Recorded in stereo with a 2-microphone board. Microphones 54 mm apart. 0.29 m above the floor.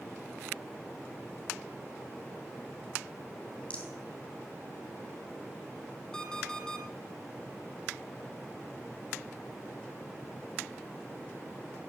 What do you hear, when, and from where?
3.7 s a rattle: 20° left (ahead or behind), 2.5 m
6.1 s an alarm clock: 10° left (ahead or behind), 2.0 m